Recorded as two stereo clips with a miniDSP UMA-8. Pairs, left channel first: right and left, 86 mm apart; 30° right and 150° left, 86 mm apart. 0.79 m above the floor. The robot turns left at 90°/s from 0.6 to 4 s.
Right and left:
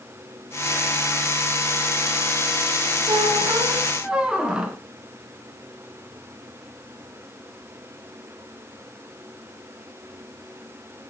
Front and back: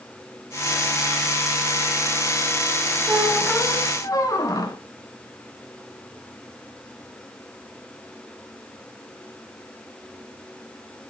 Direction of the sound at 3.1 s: 95° left.